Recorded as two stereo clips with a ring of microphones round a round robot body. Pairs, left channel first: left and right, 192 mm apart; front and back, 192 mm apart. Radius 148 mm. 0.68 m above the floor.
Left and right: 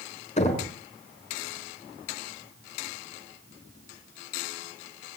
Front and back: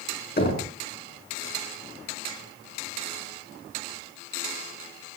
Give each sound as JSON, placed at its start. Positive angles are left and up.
{"t": 0.4, "sound": "knocking", "azimuth_deg": 35, "distance_m": 6.0}